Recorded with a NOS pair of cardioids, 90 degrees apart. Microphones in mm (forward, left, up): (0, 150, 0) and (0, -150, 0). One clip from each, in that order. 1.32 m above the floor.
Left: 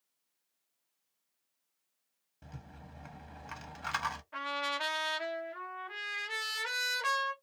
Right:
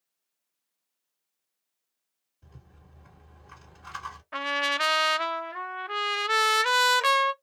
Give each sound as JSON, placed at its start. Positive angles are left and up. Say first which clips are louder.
{"t": 2.4, "sound": "a rattle", "louder": "left 6 dB", "azimuth_deg": 65, "distance_m": 1.1}
{"t": 4.3, "sound": "a trumpet", "louder": "right 12 dB", "azimuth_deg": -65, "distance_m": 0.6}